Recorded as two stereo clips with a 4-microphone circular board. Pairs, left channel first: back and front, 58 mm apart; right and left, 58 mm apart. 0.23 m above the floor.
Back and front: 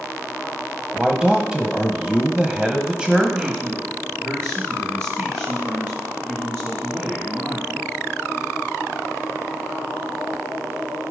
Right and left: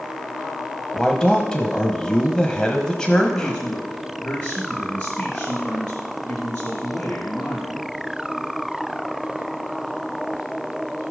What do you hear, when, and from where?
0.9 s a man speaking: 40° right, 1.1 m
3.2 s a man speaking: 30° right, 2.5 m